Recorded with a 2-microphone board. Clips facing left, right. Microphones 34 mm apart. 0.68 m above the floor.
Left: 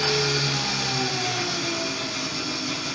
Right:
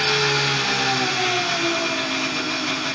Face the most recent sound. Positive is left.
turn(degrees=-45)  # may be behind; listen again after turning